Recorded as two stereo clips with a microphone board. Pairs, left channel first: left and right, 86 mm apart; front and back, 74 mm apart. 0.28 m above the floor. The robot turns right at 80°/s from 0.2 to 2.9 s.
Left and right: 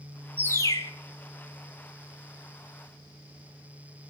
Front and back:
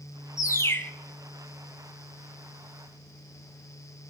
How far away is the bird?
About 0.7 m.